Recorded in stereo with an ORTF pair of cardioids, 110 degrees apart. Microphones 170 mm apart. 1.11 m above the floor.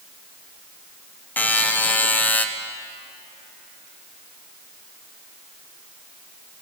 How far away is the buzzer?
About 0.5 m.